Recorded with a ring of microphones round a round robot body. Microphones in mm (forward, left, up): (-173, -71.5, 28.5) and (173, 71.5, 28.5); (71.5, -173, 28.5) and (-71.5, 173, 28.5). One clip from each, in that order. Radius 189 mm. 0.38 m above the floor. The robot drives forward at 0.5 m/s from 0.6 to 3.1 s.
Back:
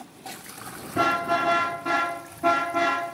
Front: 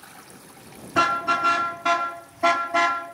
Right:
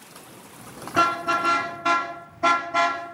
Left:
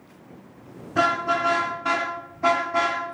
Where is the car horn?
Straight ahead, 3 m; by 3.0 s 5° left, 2 m.